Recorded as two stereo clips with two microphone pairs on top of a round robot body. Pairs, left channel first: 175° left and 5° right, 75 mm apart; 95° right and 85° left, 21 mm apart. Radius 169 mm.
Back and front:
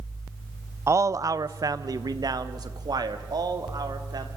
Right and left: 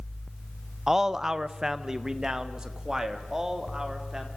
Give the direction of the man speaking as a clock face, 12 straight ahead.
11 o'clock.